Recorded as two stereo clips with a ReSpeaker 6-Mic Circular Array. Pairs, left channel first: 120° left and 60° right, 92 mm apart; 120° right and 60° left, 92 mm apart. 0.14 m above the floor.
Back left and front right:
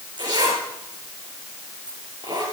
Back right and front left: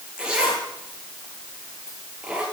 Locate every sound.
0.2 s a zipper: 20° right, 8.5 m